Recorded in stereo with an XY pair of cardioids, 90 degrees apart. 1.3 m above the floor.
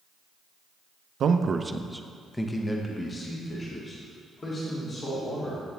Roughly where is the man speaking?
Right.